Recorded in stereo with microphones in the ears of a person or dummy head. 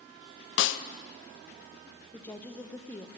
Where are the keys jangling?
I don't hear keys jangling.